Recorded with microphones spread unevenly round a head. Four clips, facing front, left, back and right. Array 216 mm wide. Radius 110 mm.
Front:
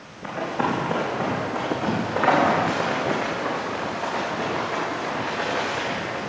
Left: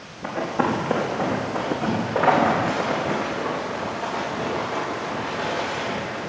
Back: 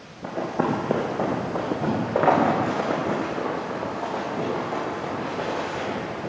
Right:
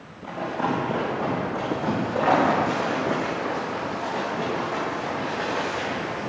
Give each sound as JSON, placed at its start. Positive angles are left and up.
{"t": 0.2, "sound": "running footsteps", "azimuth_deg": 145, "distance_m": 4.5}